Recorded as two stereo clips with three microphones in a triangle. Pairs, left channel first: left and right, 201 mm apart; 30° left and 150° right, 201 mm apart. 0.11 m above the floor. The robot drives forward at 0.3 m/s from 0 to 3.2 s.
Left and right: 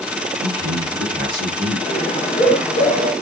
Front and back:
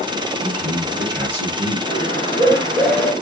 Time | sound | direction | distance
0.4 | a man speaking | 5° left | 2.0 m
1.9 | a bird | 75° left | 0.6 m